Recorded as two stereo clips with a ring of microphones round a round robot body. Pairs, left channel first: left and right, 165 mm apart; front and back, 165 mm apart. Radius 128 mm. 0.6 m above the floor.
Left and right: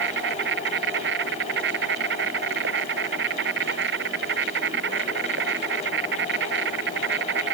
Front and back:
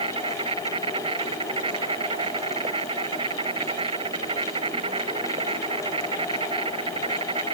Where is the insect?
110° right.